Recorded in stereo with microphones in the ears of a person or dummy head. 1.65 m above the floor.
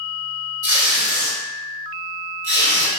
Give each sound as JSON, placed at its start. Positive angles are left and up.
{"t": 0.6, "sound": "tape being pulled", "side_deg": -20, "distance_m": 2.0}